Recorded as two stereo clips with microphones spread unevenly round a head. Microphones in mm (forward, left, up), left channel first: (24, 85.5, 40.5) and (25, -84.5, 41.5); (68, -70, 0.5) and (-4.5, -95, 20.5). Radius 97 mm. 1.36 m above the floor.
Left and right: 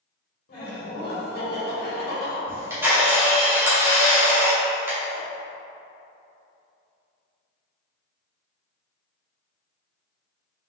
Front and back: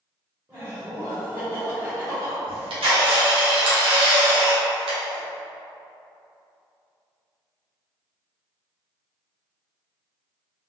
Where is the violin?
No violin in this recording.